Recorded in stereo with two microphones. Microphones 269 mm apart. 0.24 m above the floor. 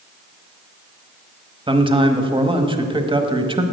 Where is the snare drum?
No snare drum in this recording.